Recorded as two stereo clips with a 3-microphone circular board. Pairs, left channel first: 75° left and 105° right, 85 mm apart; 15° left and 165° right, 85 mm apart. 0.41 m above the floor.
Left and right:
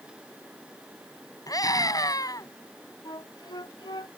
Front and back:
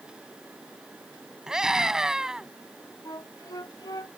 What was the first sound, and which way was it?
A scream, 115° left.